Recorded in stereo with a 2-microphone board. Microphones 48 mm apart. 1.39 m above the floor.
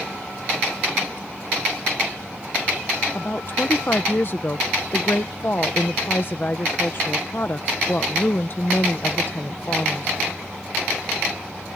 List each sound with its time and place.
3.1 s a woman speaking: 45° left (ahead or behind)